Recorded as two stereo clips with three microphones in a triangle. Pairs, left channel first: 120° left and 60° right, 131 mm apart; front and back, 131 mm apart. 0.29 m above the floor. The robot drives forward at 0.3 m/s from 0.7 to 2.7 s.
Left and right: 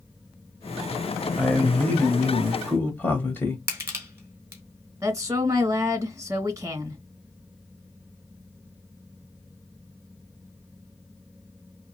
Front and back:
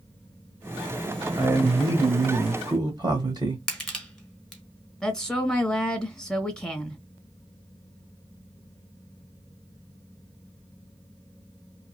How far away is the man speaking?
About 1.1 m.